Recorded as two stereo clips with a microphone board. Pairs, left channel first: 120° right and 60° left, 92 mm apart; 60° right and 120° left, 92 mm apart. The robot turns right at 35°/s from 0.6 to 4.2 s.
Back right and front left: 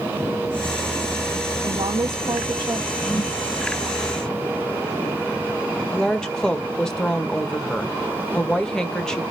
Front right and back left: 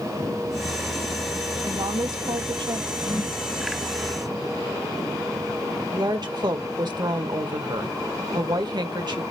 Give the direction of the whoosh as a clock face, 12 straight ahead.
3 o'clock.